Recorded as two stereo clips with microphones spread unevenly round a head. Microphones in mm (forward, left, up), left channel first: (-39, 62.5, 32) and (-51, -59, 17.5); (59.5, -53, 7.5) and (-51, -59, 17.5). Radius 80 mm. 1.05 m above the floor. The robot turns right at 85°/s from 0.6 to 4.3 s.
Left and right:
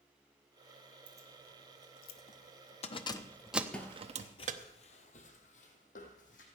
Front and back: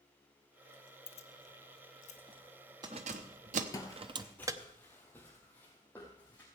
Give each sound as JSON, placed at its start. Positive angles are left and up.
{"t": 1.1, "sound": "keys jangling", "azimuth_deg": -35, "distance_m": 0.8}
{"t": 3.7, "sound": "footsteps", "azimuth_deg": 30, "distance_m": 1.1}